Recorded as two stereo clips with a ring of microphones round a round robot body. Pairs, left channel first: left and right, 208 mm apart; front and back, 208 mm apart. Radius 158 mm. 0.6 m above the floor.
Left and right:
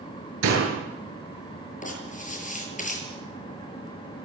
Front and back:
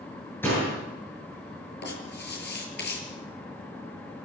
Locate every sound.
0.4 s a door slam: 85° right, 9.5 m
1.8 s writing: 35° left, 7.5 m